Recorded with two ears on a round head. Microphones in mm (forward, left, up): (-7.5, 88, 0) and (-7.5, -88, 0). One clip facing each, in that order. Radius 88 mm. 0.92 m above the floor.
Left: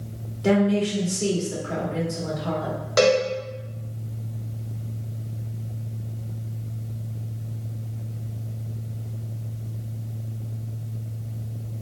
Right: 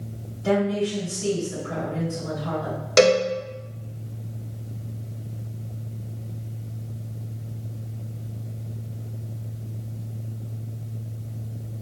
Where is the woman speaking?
80° left, 1.9 m.